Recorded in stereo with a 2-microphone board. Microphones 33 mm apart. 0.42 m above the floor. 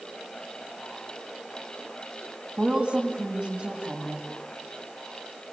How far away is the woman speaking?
About 4 m.